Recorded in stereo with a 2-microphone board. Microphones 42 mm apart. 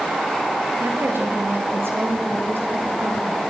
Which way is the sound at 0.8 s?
65° right (ahead or behind).